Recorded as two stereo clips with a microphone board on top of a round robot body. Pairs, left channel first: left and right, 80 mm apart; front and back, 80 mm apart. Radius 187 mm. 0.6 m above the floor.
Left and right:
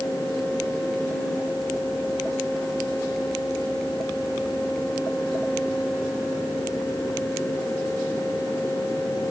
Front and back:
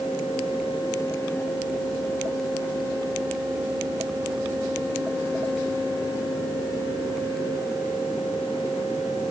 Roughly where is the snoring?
No snoring in this recording.